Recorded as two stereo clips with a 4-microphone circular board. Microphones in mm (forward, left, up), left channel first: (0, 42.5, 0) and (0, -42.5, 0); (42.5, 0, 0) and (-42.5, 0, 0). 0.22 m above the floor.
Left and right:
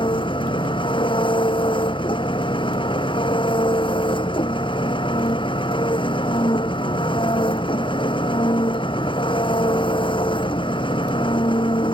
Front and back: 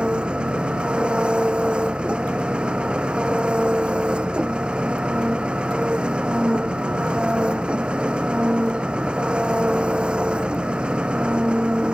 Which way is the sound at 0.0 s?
100° left.